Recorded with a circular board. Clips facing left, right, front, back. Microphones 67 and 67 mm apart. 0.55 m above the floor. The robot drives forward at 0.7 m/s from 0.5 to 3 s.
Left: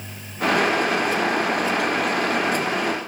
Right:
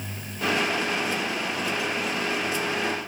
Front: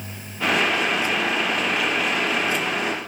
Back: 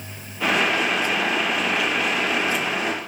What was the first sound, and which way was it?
Only background noise.